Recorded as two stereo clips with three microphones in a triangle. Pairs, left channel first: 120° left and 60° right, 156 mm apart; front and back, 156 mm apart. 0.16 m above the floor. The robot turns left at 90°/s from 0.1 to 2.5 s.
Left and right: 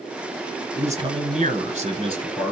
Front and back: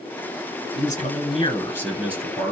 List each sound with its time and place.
0.8 s a man speaking: 20° left, 1.9 m; by 2.5 s 140° right, 1.9 m